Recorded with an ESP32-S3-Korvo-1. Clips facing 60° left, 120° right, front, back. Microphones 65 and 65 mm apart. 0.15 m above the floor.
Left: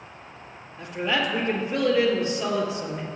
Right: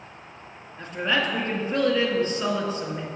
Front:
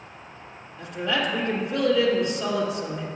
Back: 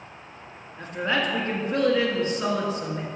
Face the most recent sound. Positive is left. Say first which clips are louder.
# right 1 dB, back 1 dB
turn(degrees=-145)